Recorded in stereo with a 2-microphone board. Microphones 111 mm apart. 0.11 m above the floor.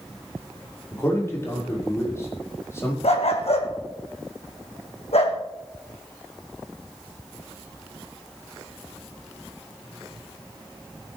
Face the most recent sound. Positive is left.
turn(degrees=65)  # may be behind; listen again after turning